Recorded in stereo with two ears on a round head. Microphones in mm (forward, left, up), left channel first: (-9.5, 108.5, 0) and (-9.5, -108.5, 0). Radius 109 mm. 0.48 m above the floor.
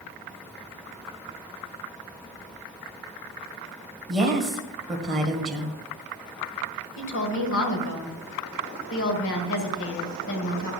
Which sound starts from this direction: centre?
A woman speaking, at 4.1 s.